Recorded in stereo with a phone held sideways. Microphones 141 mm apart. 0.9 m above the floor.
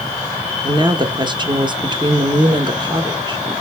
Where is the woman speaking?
35° right (ahead or behind), 0.7 m.